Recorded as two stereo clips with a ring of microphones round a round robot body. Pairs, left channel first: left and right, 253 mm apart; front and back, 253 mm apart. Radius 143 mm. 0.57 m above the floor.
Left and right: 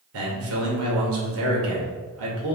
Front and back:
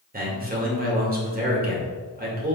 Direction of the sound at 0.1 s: 125° right.